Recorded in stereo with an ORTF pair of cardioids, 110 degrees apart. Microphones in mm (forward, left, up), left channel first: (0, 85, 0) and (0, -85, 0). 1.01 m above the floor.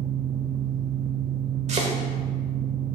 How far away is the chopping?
About 1.6 m.